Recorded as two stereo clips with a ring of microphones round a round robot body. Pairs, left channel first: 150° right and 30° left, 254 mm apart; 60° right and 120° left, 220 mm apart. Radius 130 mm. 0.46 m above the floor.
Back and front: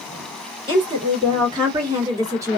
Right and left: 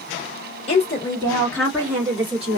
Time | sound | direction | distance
0.7 | a woman speaking | 30° right | 1.5 m